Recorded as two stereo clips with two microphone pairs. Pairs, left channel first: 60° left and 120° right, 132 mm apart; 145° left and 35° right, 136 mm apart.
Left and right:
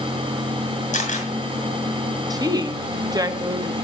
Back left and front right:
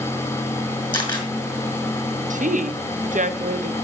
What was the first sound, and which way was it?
A camera shutter, 85° left.